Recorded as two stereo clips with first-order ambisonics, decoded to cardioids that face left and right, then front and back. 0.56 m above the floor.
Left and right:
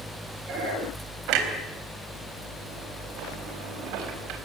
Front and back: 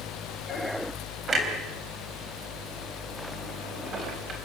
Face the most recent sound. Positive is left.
turn(degrees=-110)